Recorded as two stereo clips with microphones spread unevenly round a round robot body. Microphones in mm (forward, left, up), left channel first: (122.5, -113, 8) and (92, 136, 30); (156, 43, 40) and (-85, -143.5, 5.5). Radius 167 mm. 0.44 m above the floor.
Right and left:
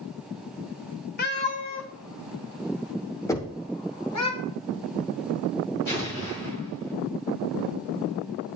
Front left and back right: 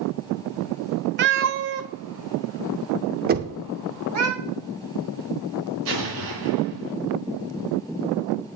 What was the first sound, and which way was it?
A cat meowing, 115° right.